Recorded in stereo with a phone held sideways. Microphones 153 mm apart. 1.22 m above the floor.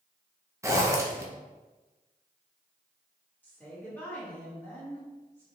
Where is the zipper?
20° right (ahead or behind), 0.7 m.